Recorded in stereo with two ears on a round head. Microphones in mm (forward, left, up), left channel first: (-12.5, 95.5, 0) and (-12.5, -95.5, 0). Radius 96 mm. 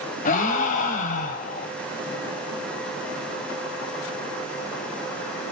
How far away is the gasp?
About 2 m.